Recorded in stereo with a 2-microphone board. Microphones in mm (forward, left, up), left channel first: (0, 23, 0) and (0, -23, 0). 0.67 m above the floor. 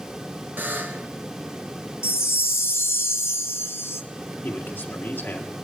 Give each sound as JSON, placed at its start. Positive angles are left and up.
{"t": 0.6, "sound": "a buzzer", "side_deg": -45, "distance_m": 1.5}
{"t": 2.0, "sound": "a chime", "side_deg": 70, "distance_m": 0.7}
{"t": 4.4, "sound": "a man speaking", "side_deg": 45, "distance_m": 1.8}